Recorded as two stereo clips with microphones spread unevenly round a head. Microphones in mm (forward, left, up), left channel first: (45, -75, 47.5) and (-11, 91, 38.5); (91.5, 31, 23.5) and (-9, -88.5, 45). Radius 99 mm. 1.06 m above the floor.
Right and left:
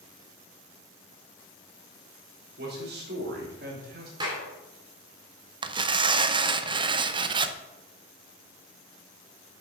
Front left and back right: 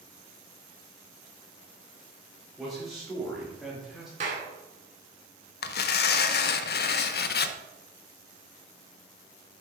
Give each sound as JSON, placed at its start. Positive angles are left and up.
{"t": 2.6, "sound": "a man speaking", "azimuth_deg": 140, "distance_m": 3.5}
{"t": 4.2, "sound": "a clap", "azimuth_deg": 175, "distance_m": 2.0}
{"t": 5.6, "sound": "tearing paper", "azimuth_deg": 45, "distance_m": 0.6}